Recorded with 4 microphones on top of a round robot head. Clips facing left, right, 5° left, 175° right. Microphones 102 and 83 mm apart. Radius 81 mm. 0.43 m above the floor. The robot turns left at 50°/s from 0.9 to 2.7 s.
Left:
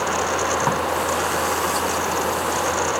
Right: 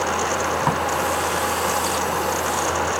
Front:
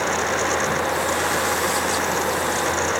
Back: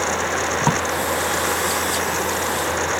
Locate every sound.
0.6 s a drawer: straight behind, 1.8 m